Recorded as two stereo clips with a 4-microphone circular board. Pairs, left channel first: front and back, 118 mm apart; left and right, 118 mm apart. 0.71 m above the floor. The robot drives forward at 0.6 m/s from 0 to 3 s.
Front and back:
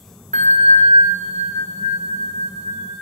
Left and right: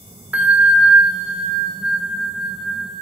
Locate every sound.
0.3 s a bell: 170° right, 0.8 m; by 3.0 s 175° right, 2.5 m